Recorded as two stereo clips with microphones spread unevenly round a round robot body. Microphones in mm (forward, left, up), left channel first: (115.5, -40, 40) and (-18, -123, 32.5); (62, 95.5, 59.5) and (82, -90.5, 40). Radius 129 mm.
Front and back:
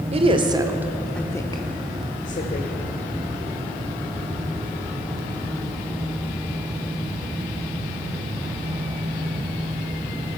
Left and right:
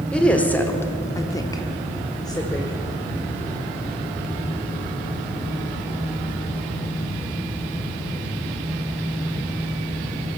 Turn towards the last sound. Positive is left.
turn(degrees=25)